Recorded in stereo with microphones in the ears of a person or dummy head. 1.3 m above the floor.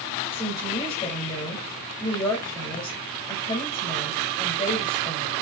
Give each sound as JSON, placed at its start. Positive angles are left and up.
{"t": 0.3, "sound": "a woman speaking", "side_deg": 30, "distance_m": 2.5}